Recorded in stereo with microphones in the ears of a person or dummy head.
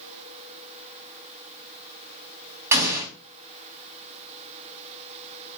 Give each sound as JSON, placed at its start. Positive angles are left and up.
{"t": 2.7, "sound": "an explosion", "side_deg": -10, "distance_m": 1.8}